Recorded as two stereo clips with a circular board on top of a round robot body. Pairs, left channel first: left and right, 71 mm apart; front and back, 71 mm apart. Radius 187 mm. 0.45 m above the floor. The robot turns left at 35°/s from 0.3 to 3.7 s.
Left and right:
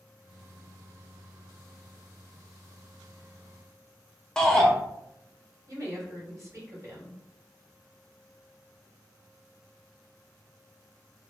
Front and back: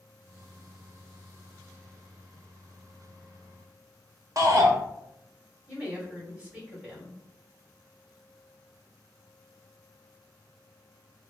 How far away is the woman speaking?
About 1.9 m.